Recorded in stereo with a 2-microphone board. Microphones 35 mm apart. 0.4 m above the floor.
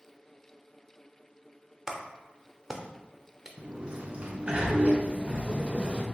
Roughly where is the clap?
Centre.